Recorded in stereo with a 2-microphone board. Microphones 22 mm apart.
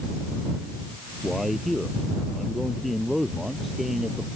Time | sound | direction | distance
1.2 | a man speaking | 5° right (ahead or behind) | ?